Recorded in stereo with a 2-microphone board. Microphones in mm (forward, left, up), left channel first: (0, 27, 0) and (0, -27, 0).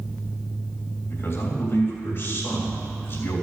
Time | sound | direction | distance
1.1 | a man speaking | 50° left (ahead or behind) | 3 m